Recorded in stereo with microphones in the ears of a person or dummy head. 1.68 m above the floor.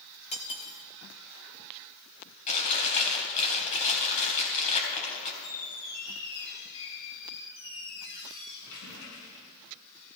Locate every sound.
0.3 s cutlery clinking: 35° left (ahead or behind), 2 m
2.5 s chewing: 35° left (ahead or behind), 4 m
5.4 s a squeak: 75° left (ahead or behind), 6 m